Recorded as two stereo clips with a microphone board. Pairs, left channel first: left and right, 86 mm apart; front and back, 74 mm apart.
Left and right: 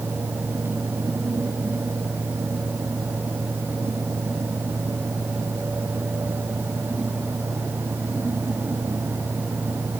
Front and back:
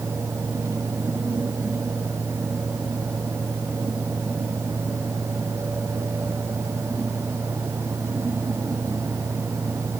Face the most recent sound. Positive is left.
No sound to turn to.